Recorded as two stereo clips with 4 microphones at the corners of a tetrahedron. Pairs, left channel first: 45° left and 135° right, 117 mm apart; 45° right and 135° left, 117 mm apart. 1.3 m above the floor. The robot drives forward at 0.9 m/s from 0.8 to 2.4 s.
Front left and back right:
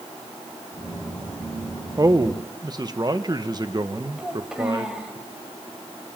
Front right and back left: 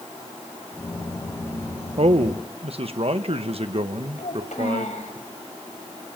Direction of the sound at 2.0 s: 165° left.